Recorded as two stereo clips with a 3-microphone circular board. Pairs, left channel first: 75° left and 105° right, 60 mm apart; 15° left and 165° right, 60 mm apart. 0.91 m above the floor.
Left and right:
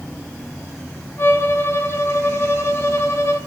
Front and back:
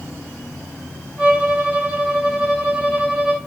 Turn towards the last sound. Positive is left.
turn(degrees=125)